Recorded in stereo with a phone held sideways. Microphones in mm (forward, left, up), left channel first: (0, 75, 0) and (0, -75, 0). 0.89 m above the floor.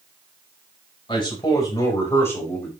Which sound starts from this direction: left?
A man speaking, at 1.1 s.